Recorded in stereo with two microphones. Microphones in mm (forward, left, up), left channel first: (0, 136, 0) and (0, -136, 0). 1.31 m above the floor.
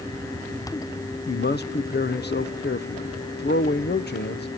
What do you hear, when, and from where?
1.3 s a man speaking: 40° left (ahead or behind), 0.6 m